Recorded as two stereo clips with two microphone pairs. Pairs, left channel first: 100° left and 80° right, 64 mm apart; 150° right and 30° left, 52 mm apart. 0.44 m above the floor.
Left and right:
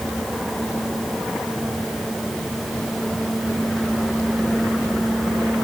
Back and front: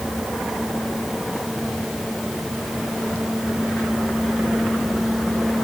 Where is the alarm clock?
No alarm clock in this recording.